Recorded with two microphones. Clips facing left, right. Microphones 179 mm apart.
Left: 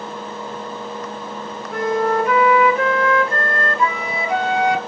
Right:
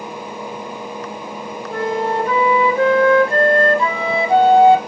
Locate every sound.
1.7 s a flute: 30° right (ahead or behind), 1.0 m